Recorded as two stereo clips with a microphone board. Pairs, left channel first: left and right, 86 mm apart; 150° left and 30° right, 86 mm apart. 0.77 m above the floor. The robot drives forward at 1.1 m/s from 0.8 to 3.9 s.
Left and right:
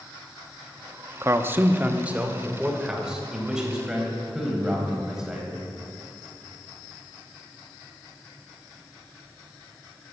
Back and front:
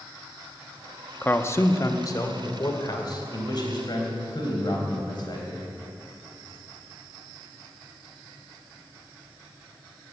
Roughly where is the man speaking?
Behind right.